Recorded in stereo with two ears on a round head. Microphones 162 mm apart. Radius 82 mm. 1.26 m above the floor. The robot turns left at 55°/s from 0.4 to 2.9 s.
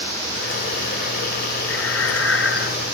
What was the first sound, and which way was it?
Breathing, 105° left.